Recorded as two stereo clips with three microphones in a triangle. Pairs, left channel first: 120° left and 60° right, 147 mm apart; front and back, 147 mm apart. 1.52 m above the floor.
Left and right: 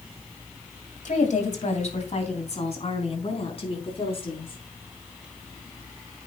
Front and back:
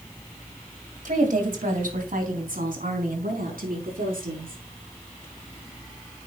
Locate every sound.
1.1 s a woman speaking: 155° left, 2.5 m; by 4.6 s 170° left, 5 m